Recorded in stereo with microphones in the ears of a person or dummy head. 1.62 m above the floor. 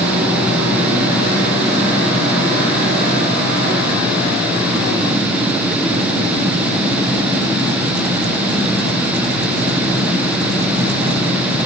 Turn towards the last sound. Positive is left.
No sound to turn to.